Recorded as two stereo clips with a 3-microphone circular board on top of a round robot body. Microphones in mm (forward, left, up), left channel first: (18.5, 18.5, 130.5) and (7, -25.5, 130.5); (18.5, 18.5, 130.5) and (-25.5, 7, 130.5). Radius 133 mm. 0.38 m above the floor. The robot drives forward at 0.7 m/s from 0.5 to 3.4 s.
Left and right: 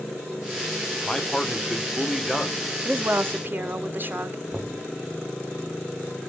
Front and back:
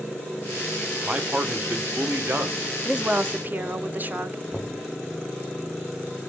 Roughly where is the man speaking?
Behind left.